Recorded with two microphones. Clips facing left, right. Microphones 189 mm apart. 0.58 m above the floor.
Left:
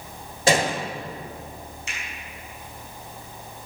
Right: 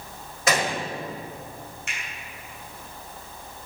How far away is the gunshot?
About 1.2 m.